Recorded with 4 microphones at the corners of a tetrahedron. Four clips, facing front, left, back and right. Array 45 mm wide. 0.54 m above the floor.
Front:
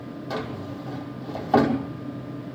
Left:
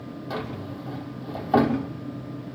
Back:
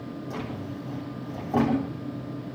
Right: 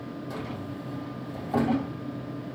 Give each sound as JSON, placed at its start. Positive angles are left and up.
{"t": 0.3, "sound": "a drawer", "azimuth_deg": 30, "distance_m": 5.5}